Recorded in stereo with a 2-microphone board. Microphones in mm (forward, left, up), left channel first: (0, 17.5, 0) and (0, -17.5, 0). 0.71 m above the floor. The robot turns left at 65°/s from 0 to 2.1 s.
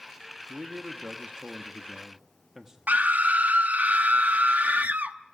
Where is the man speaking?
50° right, 1.2 m; by 2.8 s 155° right, 1.2 m.